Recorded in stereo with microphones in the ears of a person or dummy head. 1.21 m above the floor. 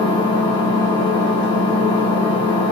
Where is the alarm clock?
I don't hear an alarm clock.